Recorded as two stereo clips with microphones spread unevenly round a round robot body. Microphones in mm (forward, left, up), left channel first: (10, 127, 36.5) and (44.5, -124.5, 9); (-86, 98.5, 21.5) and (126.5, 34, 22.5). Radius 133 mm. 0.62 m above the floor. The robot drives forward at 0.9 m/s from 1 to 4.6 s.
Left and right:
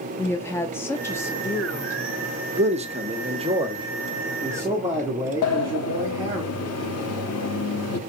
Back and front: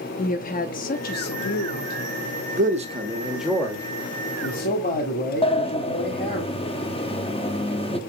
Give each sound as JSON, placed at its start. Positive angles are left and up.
{"t": 0.2, "sound": "a woman speaking", "azimuth_deg": 180, "distance_m": 0.7}
{"t": 2.6, "sound": "a man speaking", "azimuth_deg": -45, "distance_m": 1.3}
{"t": 5.4, "sound": "a sliding door", "azimuth_deg": 105, "distance_m": 0.8}